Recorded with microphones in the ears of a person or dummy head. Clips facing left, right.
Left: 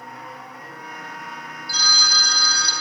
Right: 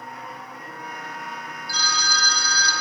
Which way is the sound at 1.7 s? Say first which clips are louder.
Right 1 dB; 35° left (ahead or behind).